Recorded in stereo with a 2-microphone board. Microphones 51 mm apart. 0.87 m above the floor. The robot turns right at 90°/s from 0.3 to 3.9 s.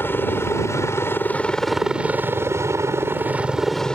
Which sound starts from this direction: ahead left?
A helicopter, at 0.0 s.